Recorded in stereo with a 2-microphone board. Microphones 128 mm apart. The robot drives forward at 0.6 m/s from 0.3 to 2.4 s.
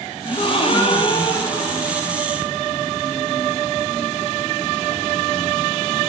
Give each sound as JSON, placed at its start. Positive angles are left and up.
{"t": 0.2, "sound": "a gasp", "side_deg": 40, "distance_m": 0.6}